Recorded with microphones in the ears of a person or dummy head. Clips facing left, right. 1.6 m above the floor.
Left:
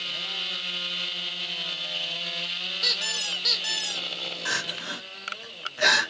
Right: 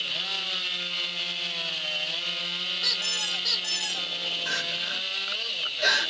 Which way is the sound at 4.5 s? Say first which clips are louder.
Left 1 dB; 75° left (ahead or behind).